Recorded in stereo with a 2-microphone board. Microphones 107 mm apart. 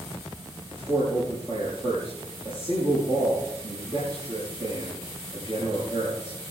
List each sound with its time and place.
0.7 s a man speaking: 50° right (ahead or behind), 6.5 m